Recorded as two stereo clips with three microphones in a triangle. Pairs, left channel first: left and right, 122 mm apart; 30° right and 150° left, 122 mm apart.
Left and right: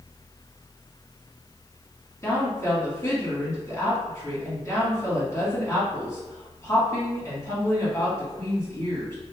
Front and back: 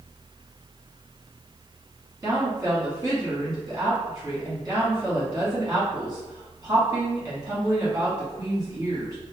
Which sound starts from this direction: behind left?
A woman speaking, at 2.2 s.